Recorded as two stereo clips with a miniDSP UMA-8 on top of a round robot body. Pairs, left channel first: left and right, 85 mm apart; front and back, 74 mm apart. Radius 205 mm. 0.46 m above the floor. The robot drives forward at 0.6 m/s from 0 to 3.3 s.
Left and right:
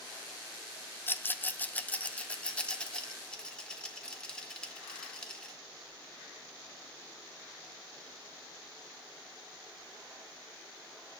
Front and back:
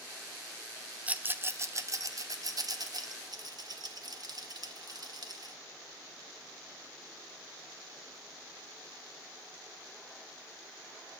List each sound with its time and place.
1.1 s a rattle: 130° left, 0.9 m; by 5.5 s 170° left, 1.8 m